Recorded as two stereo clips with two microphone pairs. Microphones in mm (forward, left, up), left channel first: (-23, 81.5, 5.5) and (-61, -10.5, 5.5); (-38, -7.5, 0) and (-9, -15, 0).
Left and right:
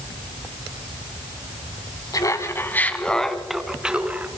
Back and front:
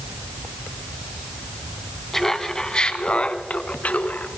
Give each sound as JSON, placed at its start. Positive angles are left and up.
{"t": 2.1, "sound": "laughter", "azimuth_deg": 95, "distance_m": 1.2}